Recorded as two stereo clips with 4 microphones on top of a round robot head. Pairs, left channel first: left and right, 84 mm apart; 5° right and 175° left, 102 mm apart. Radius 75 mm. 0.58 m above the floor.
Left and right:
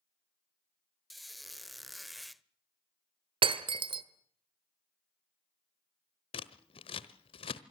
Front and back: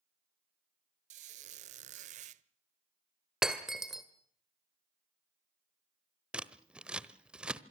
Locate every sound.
1.1 s a squeak: straight behind, 0.8 m
3.4 s breaking glass: 95° right, 1.5 m
6.3 s scissors: 95° left, 1.2 m